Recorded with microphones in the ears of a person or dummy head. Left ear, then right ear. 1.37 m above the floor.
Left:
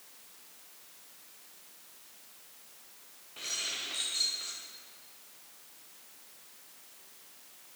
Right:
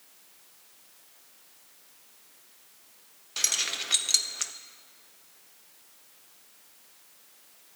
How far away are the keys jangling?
About 0.6 m.